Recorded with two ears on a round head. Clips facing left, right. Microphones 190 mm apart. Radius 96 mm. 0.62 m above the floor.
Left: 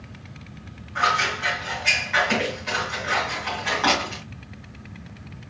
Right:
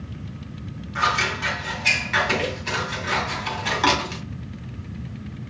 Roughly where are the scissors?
Right.